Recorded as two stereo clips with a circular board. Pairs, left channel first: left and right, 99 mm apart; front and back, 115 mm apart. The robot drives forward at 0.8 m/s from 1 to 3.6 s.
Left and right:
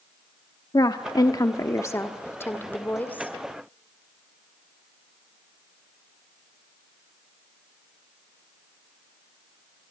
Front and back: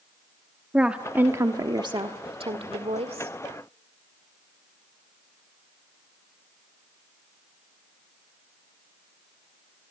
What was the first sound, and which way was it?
A woman speaking, 105° left.